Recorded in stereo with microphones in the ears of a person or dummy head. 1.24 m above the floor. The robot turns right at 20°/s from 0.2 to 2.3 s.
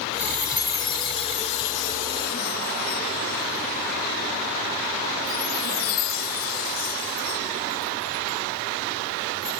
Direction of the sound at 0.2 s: 10° left (ahead or behind).